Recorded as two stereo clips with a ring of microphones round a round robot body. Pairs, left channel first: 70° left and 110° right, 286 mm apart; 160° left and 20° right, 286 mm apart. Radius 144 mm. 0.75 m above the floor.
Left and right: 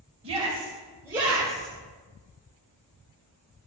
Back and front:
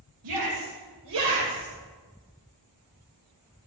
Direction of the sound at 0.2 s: 40° right.